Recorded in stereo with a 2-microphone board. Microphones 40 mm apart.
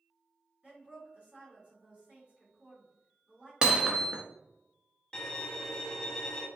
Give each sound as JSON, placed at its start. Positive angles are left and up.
{"t": 0.6, "sound": "a woman speaking", "side_deg": -35, "distance_m": 1.8}
{"t": 3.6, "sound": "hammering", "side_deg": -25, "distance_m": 0.5}
{"t": 5.1, "sound": "a violin", "side_deg": 15, "distance_m": 0.6}